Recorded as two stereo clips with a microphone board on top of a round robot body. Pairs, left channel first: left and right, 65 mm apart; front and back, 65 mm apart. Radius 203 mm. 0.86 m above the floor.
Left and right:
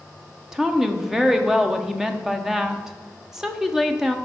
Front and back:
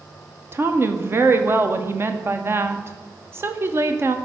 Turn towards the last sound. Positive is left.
turn(degrees=-170)